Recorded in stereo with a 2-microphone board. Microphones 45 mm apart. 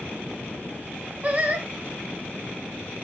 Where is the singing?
35° right (ahead or behind), 0.7 m.